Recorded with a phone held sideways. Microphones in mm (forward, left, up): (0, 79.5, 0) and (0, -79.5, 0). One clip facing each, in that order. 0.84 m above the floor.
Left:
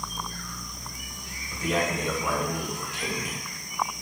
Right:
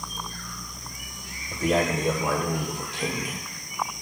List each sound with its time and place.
1.5 s a man speaking: 45° right (ahead or behind), 2 m; by 4.0 s 5° right (ahead or behind), 1.0 m